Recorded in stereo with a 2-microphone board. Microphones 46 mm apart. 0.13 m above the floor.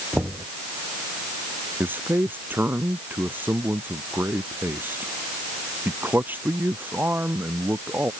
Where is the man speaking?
45° right (ahead or behind).